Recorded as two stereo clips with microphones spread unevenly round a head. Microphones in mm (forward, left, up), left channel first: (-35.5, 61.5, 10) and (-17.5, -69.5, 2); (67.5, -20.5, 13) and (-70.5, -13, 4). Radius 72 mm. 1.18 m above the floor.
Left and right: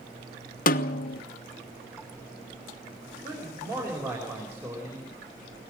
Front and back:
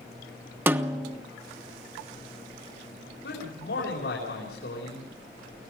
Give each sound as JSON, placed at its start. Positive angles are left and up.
{"t": 0.7, "sound": "a snare drum", "azimuth_deg": 105, "distance_m": 1.1}
{"t": 3.2, "sound": "a man speaking", "azimuth_deg": -10, "distance_m": 5.0}